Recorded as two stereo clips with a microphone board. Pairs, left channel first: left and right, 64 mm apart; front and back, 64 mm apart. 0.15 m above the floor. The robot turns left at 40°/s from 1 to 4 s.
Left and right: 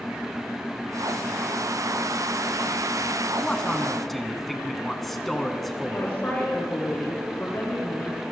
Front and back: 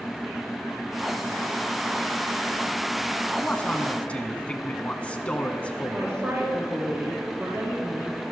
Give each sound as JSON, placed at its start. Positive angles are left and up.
{"t": 3.4, "sound": "a man speaking", "azimuth_deg": 35, "distance_m": 1.1}
{"t": 5.9, "sound": "a woman speaking", "azimuth_deg": 145, "distance_m": 3.5}